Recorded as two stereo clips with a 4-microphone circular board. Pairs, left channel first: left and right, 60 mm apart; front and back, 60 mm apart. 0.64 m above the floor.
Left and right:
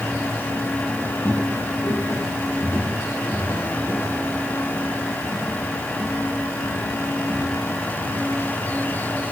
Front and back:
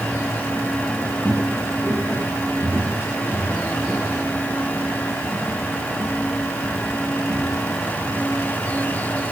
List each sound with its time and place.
1.2 s footsteps: 130° left, 4 m; by 8.4 s 105° left, 8.5 m